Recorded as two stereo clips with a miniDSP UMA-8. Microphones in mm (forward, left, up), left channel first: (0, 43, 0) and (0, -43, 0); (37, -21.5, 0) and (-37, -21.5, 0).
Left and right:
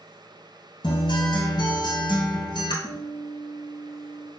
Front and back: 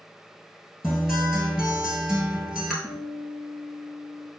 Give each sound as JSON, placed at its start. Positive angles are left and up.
{"t": 0.8, "sound": "a guitar", "azimuth_deg": 100, "distance_m": 1.0}
{"t": 2.8, "sound": "a guitar", "azimuth_deg": 80, "distance_m": 0.8}